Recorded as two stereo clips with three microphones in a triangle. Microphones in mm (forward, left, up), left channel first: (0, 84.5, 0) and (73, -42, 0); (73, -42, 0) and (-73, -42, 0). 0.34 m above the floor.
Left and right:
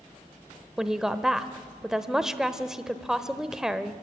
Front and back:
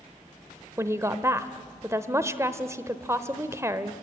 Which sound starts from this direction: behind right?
A woman speaking, at 0.8 s.